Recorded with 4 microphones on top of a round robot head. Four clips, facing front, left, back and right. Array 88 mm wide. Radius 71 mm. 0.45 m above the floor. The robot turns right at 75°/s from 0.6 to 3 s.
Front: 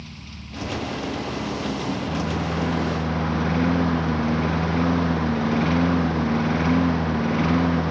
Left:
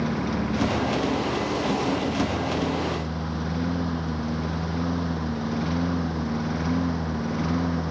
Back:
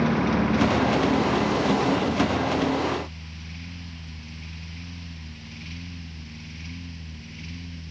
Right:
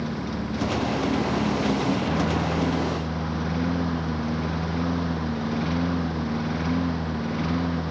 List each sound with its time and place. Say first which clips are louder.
0.0 s a lawn mower: left 3 dB, back 20 dB; 175° left; by 7.9 s 10° left